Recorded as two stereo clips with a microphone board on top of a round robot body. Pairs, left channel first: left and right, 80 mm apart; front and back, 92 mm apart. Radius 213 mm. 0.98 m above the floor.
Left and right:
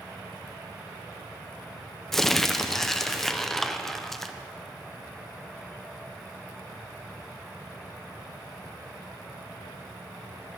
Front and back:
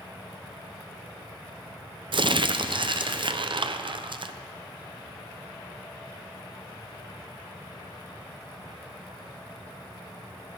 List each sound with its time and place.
2.1 s crumpling: 175° left, 0.6 m